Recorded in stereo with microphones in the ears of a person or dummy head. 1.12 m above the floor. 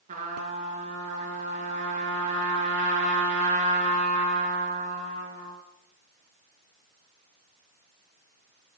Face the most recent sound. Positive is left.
turn(degrees=-35)  # may be behind; listen again after turning